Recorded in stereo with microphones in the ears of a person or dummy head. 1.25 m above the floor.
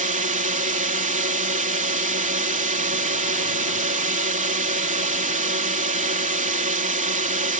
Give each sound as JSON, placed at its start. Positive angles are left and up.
{"t": 0.0, "sound": "a drone", "side_deg": -45}